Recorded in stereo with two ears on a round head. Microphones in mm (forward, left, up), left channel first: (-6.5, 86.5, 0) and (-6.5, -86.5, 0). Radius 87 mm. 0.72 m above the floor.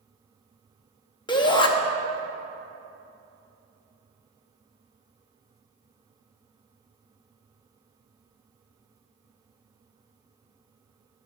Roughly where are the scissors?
No scissors in this recording.